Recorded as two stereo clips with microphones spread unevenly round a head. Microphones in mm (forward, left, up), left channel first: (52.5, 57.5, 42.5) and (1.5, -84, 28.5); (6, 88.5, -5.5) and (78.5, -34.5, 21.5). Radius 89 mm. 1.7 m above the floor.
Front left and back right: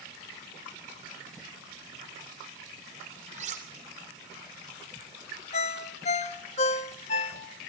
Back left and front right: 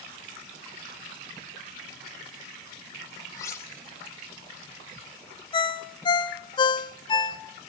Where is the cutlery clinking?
160° right, 3 m.